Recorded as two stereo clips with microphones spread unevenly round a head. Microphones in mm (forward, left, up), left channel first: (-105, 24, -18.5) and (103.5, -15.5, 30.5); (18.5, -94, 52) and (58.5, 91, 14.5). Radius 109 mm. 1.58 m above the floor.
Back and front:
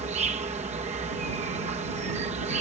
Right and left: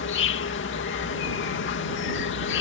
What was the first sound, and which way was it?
An insect, 75° right.